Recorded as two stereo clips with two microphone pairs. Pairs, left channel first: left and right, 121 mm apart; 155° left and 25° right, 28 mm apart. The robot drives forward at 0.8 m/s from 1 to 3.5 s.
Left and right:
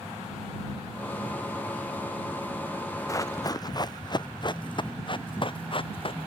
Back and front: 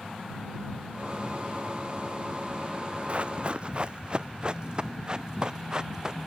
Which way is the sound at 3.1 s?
25° left.